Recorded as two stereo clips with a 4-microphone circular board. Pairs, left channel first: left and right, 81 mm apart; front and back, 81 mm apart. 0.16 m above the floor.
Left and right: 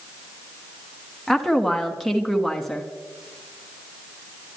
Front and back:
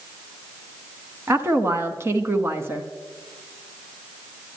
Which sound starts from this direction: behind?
A woman speaking, at 1.3 s.